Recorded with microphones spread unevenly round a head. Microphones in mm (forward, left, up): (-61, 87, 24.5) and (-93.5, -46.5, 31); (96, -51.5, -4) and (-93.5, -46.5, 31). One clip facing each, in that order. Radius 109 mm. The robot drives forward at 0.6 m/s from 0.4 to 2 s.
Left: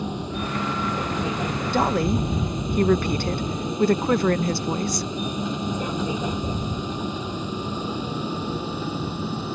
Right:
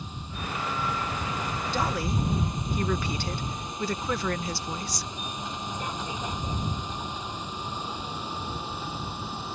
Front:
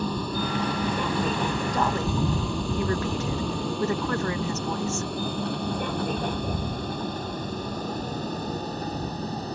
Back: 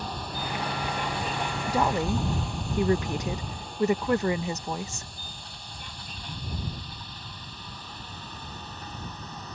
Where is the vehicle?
20° left; by 9.6 s 65° left.